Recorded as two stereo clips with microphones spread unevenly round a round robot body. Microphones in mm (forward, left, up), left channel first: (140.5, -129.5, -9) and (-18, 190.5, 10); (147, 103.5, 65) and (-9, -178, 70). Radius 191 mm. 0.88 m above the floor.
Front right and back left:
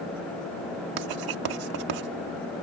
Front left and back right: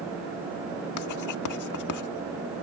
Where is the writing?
95° left.